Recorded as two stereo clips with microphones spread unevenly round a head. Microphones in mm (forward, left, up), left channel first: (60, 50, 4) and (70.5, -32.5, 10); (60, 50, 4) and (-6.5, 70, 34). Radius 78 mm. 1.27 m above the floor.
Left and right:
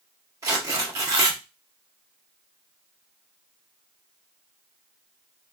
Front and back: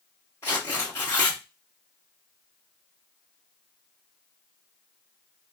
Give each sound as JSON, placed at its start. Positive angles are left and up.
{"t": 0.4, "sound": "tearing paper", "azimuth_deg": -105, "distance_m": 0.6}